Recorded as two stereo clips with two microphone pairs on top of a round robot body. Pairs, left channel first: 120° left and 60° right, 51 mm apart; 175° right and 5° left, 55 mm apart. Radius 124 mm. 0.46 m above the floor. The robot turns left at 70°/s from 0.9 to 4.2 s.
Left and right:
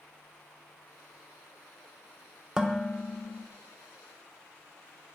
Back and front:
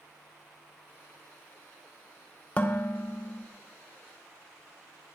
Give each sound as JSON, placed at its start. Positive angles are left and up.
{"t": 2.6, "sound": "dishes clattering", "azimuth_deg": -120, "distance_m": 0.8}